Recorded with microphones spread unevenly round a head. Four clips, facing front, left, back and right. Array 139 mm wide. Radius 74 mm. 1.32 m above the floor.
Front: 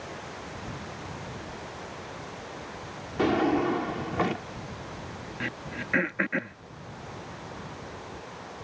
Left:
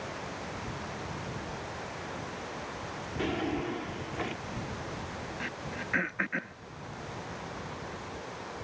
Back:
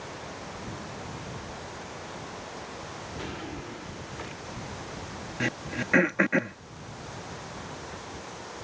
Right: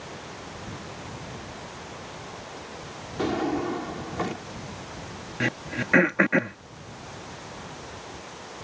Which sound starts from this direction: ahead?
A drawer, at 3.2 s.